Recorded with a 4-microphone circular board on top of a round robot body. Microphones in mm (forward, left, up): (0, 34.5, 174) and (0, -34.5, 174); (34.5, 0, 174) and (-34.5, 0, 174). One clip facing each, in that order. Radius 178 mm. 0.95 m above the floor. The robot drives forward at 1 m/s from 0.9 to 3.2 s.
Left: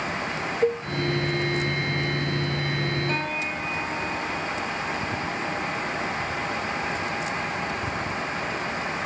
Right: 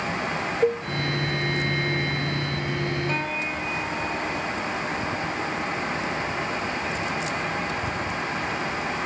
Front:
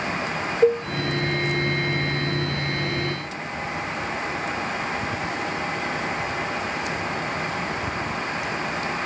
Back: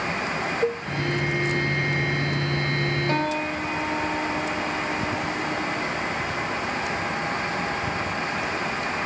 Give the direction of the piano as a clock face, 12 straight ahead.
6 o'clock.